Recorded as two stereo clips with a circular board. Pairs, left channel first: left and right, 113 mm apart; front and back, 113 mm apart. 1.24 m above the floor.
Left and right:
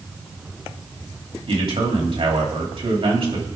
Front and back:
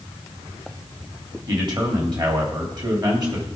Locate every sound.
1.5 s a man speaking: 130° right, 3 m